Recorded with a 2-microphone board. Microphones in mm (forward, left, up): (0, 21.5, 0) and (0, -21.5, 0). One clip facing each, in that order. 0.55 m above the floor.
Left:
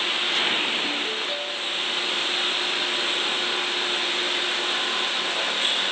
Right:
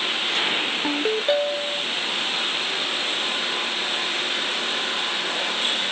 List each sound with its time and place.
0.8 s a ringtone: 75° right (ahead or behind), 0.9 m